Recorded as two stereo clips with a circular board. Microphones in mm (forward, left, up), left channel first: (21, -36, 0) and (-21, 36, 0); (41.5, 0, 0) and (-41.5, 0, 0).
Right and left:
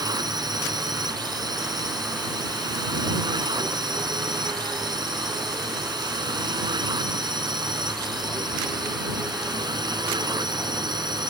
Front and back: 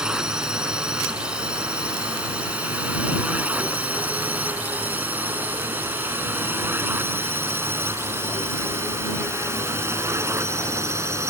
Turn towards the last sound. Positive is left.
turn(degrees=130)